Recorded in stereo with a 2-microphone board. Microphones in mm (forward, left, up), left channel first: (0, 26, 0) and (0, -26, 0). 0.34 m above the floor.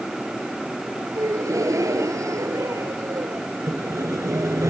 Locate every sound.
1.1 s a gasp: 80° right
3.7 s sawing: 80° right